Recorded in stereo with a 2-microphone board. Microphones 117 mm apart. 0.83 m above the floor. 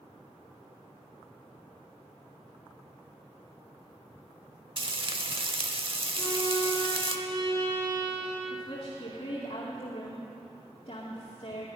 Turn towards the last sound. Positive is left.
turn(degrees=50)  # may be behind; listen again after turning